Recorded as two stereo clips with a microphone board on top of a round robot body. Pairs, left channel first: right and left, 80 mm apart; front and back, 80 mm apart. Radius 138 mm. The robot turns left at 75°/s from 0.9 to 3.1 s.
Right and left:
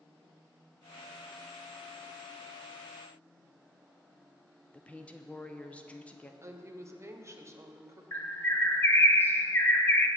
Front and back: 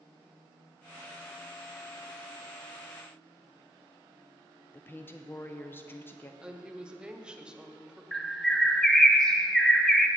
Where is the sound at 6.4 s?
110° left, 1.3 m.